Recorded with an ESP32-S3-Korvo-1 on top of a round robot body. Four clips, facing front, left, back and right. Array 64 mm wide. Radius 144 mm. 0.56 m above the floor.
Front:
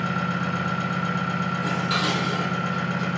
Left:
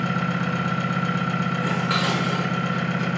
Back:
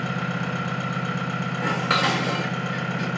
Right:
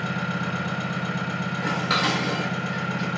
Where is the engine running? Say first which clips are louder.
Left 3 dB, front 2 dB; 95° left, 3 m.